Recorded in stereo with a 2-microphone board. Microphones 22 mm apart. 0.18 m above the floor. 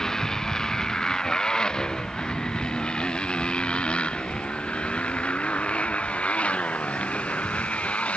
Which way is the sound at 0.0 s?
30° left (ahead or behind).